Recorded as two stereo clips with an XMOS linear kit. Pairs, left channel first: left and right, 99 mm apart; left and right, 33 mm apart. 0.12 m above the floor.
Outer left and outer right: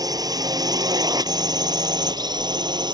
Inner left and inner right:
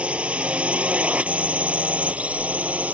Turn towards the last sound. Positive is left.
turn(degrees=-45)  # may be behind; listen again after turning